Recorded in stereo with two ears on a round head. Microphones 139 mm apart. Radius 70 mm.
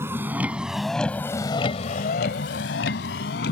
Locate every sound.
0.0 s a vehicle: 15° right (ahead or behind); by 3.5 s 75° left (ahead or behind)